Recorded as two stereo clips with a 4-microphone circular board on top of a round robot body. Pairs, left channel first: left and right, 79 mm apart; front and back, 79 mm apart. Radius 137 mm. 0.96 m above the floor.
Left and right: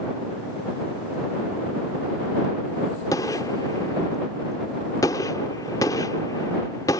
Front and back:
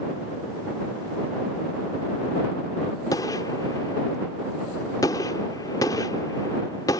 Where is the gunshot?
45° left.